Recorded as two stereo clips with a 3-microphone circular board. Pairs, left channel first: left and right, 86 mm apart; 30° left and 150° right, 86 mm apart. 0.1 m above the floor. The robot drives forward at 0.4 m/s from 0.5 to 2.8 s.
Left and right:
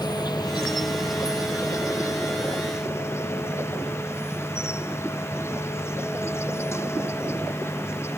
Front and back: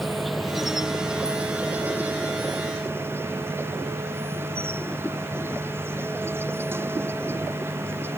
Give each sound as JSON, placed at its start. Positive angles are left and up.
{"t": 0.0, "sound": "an insect", "azimuth_deg": 120}